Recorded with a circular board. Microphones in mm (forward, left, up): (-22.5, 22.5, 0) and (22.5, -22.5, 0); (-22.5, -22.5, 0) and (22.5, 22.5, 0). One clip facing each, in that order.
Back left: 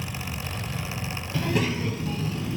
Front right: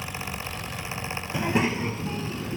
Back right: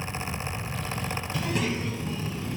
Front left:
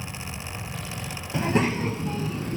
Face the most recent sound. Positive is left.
turn(degrees=10)